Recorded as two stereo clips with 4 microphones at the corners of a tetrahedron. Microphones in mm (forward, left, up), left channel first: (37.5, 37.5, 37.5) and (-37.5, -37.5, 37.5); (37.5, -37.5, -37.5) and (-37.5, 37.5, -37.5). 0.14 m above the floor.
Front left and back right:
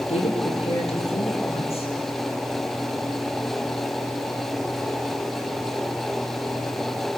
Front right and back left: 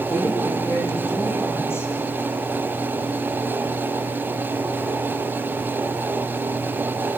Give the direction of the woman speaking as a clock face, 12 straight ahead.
11 o'clock.